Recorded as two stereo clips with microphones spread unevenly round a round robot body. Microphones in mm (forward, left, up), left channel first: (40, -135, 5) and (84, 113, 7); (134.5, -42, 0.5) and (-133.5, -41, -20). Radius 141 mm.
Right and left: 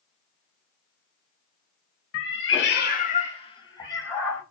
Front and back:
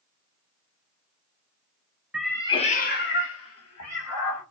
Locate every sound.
2.1 s a cat meowing: 90° right, 0.6 m; by 4.4 s 20° right, 1.3 m